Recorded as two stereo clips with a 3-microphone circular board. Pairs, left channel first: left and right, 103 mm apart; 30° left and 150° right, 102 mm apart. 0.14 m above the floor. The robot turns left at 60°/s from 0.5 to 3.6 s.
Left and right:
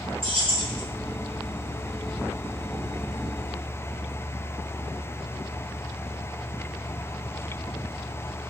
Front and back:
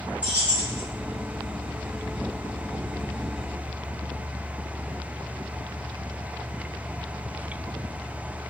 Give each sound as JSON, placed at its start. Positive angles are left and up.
{"t": 0.2, "sound": "keys jangling", "azimuth_deg": -75, "distance_m": 1.7}